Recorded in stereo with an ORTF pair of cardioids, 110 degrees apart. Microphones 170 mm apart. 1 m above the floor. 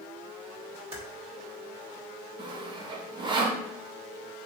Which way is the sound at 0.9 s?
35° right.